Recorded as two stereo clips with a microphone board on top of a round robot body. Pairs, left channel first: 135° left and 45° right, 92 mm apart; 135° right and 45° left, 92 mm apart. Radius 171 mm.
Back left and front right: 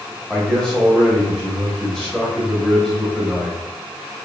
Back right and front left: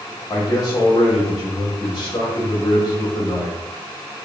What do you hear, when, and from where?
0.3 s a man speaking: 130° right, 0.9 m